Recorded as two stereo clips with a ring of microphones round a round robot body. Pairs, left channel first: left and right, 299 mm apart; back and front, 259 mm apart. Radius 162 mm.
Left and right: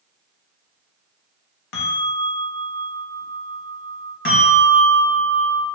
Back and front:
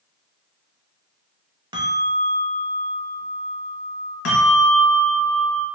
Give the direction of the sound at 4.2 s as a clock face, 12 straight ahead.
7 o'clock.